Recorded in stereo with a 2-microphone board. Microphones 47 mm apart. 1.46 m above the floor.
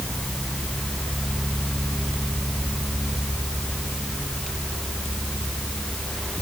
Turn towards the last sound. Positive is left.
No sound to turn to.